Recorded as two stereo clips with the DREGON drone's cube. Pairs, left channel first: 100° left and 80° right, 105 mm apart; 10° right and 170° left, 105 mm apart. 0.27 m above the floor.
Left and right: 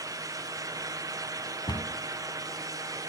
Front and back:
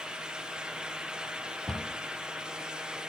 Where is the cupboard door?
75° left, 0.6 m.